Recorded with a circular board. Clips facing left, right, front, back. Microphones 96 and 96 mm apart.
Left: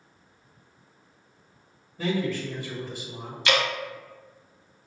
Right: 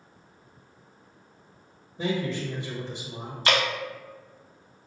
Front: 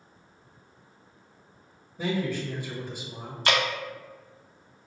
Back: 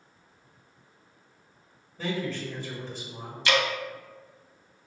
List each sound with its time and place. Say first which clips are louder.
2.0 s a man speaking: left 1 dB, front 2 dB; 60° right, 0.9 m
3.5 s dripping: even, even; 40° right, 0.6 m